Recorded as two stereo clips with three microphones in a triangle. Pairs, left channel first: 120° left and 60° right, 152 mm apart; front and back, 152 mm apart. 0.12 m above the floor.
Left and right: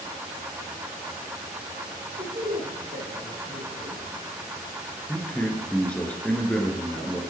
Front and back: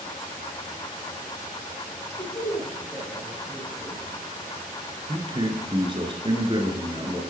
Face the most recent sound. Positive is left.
turn(degrees=-165)